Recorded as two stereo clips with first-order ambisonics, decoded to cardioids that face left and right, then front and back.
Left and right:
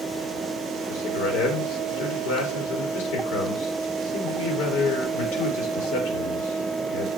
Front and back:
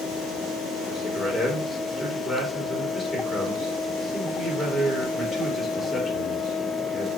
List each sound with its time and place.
0.9 s a man speaking: 95° left, 3.5 m